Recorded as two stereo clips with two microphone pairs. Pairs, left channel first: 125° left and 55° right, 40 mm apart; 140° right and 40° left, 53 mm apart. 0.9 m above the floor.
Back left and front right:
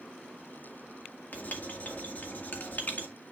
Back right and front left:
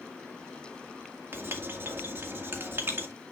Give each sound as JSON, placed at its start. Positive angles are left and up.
{"t": 1.3, "sound": "writing", "azimuth_deg": 85, "distance_m": 2.0}